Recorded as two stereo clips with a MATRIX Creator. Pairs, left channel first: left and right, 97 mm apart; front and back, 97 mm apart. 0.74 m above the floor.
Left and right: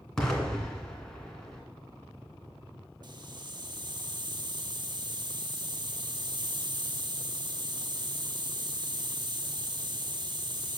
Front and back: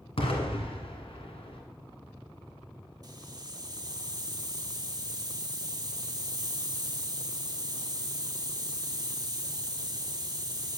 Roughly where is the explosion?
Ahead.